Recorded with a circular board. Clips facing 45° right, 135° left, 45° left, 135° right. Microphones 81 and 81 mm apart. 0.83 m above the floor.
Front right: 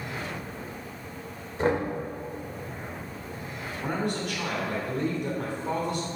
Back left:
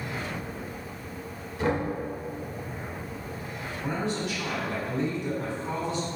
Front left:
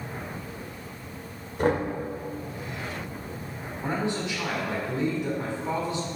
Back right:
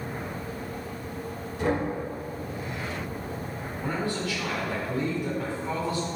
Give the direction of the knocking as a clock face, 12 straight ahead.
12 o'clock.